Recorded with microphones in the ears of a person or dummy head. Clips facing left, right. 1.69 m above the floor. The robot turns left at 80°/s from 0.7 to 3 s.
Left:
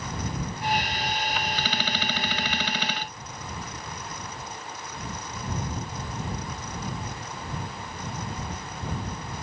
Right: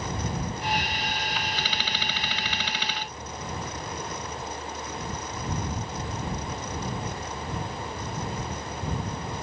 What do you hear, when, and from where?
Only background noise.